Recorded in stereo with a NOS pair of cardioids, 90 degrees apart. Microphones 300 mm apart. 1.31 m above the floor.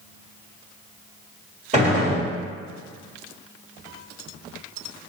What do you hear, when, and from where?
1.7 s a gunshot: 20° right, 1.3 m